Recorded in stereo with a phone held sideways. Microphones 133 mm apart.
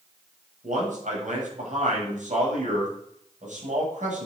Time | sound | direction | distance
0.6 | a man speaking | 75° right (ahead or behind) | 8 m